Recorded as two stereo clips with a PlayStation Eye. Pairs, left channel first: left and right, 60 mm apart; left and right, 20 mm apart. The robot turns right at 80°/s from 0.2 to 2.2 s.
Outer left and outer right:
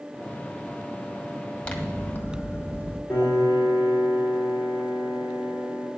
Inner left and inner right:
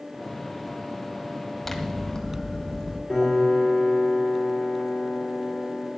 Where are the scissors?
30° left, 1.7 m; by 3.0 s 75° left, 1.7 m.